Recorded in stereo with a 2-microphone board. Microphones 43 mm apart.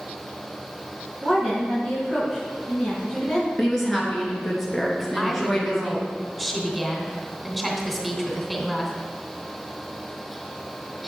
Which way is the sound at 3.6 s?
5° left (ahead or behind).